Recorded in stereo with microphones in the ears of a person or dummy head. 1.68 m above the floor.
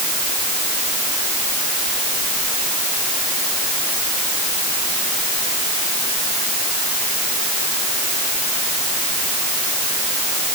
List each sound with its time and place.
Only background noise.